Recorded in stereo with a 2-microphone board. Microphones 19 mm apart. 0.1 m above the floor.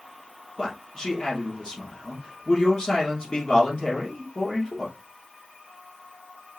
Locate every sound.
0.6 s a man speaking: 50° left (ahead or behind), 2 m